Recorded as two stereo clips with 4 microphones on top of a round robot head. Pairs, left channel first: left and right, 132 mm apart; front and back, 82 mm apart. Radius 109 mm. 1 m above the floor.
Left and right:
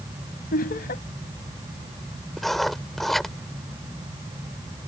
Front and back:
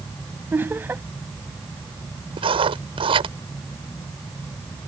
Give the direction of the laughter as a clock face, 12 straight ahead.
8 o'clock.